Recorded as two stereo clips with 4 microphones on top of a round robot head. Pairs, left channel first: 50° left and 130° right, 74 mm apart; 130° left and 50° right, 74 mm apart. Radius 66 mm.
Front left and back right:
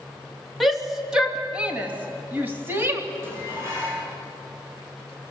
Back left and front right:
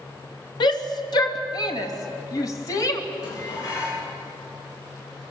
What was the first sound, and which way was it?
A shout, 145° left.